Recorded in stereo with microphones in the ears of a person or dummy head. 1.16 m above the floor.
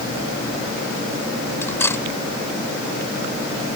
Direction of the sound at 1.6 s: 15° left (ahead or behind).